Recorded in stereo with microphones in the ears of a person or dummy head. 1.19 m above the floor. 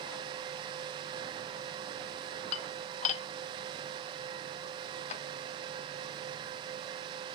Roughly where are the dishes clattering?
Left.